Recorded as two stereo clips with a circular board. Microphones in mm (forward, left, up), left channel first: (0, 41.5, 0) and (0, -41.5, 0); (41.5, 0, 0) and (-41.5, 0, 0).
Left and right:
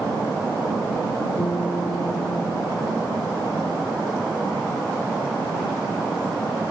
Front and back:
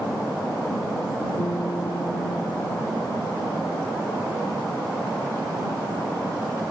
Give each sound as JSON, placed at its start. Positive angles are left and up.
{"t": 1.4, "sound": "a guitar", "azimuth_deg": 45}